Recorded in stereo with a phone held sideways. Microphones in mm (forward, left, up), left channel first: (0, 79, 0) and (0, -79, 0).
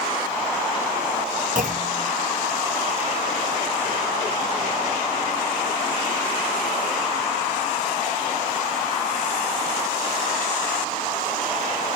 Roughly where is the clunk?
Right.